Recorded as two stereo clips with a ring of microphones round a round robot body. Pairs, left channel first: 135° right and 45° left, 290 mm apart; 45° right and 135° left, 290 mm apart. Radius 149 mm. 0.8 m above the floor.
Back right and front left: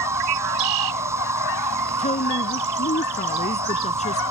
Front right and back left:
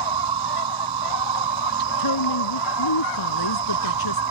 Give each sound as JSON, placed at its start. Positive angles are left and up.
{"t": 0.0, "sound": "an insect", "azimuth_deg": 125}
{"t": 2.0, "sound": "a woman speaking", "azimuth_deg": -65}